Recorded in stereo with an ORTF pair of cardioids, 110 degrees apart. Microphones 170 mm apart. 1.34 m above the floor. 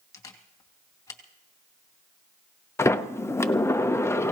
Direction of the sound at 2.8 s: 15° left.